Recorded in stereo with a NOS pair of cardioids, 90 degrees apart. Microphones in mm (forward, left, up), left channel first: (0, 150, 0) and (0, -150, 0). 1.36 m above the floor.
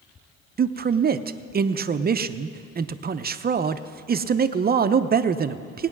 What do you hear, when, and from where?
0.6 s a man speaking: 30° right, 0.6 m